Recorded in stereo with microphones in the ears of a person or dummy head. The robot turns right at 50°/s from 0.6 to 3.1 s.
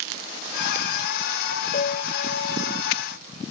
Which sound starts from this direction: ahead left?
A piano, at 1.7 s.